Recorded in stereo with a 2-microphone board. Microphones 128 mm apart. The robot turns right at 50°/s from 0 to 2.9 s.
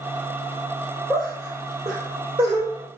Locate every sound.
1.1 s laughter: centre (ahead or behind), 1.9 m; by 2.7 s 50° right (ahead or behind), 1.9 m